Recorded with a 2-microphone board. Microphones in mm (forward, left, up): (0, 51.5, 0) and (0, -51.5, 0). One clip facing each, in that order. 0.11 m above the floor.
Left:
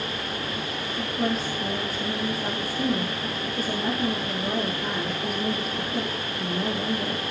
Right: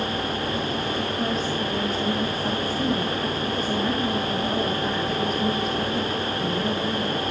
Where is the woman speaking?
5° left (ahead or behind), 3.5 m.